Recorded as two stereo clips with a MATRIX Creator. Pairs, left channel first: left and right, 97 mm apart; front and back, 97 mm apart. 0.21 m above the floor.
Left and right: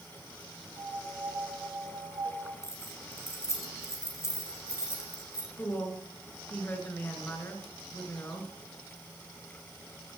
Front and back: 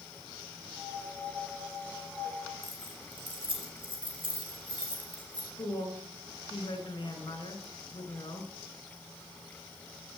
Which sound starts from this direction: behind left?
Keys jangling, at 2.6 s.